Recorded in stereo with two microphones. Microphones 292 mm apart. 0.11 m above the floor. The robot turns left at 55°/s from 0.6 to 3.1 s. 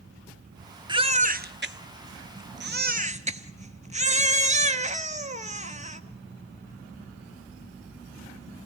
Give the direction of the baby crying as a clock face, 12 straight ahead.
1 o'clock.